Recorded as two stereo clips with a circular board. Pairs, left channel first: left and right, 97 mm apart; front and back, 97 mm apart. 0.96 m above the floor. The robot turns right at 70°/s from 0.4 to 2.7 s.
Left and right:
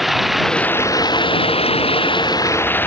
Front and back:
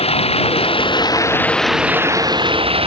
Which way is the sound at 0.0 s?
Straight ahead.